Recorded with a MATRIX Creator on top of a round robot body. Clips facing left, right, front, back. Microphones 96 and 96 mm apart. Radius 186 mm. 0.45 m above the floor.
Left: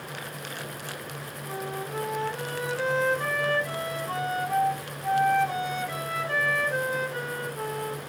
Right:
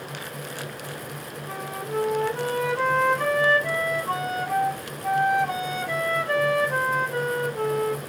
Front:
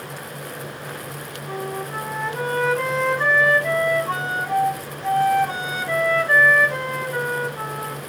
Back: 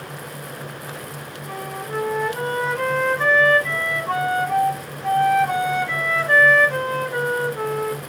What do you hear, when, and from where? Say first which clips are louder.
1.5 s a flute: right 2 dB, front 1 dB; 95° right, 1.4 m